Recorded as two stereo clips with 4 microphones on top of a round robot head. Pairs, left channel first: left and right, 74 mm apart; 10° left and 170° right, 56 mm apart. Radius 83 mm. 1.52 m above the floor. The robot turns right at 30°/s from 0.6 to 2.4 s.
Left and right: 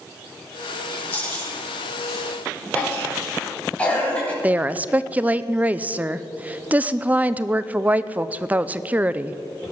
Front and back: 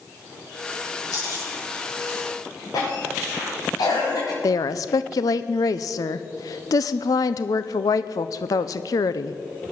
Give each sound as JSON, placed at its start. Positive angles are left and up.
{"t": 1.1, "sound": "chewing", "azimuth_deg": 15, "distance_m": 8.0}
{"t": 2.7, "sound": "a cough", "azimuth_deg": 15, "distance_m": 7.0}
{"t": 4.4, "sound": "a woman speaking", "azimuth_deg": -20, "distance_m": 0.5}